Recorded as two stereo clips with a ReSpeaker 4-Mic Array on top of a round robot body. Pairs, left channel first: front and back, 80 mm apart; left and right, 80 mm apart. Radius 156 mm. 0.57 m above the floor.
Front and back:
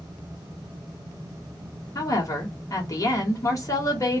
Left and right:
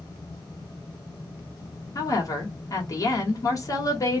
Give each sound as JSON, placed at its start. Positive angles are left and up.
{"t": 1.9, "sound": "a woman speaking", "azimuth_deg": 45, "distance_m": 1.4}